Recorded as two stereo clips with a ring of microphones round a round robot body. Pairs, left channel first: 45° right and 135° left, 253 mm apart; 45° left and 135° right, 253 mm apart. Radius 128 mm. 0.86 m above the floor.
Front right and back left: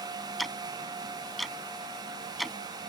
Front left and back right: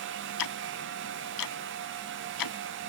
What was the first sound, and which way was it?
Ticking, 45° left.